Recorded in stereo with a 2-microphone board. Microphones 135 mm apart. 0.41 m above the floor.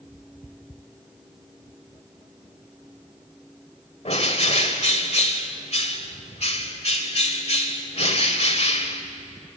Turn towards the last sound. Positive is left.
turn(degrees=50)  # may be behind; listen again after turning